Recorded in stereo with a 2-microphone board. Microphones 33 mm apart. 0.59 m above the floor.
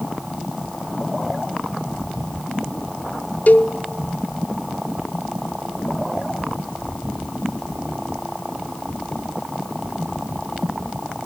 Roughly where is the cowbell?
Left.